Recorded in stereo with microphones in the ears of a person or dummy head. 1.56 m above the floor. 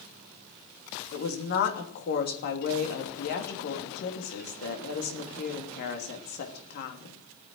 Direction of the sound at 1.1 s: 55° left (ahead or behind).